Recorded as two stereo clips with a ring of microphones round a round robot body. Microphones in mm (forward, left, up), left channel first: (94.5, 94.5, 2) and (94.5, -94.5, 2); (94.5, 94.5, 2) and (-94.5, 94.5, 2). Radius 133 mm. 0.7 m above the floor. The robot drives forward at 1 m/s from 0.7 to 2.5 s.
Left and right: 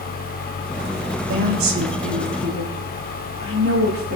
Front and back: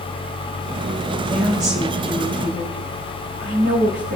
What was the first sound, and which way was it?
A woman speaking, 110° right.